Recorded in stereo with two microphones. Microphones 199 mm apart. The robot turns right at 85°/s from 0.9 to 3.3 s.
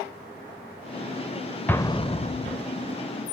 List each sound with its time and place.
1.7 s an explosion: 10° left (ahead or behind), 0.6 m; by 2.6 s 40° left (ahead or behind), 0.6 m